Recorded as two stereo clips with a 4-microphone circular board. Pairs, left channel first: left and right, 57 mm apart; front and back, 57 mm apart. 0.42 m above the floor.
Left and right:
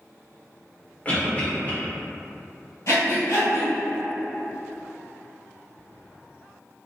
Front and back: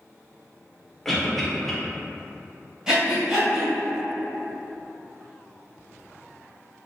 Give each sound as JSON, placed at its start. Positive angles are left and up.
{"t": 1.1, "sound": "a cough", "azimuth_deg": 80, "distance_m": 1.0}
{"t": 2.9, "sound": "breathing", "azimuth_deg": 105, "distance_m": 1.7}